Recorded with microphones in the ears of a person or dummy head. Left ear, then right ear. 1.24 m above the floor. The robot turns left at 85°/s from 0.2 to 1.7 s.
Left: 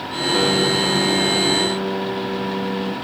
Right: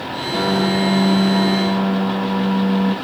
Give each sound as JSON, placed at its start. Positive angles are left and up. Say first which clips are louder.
{"t": 0.3, "sound": "a piano", "louder": "left 1 dB", "azimuth_deg": -5, "distance_m": 2.0}